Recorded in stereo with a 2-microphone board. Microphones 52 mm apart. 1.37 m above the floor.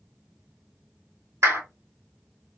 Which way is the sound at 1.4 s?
75° right (ahead or behind).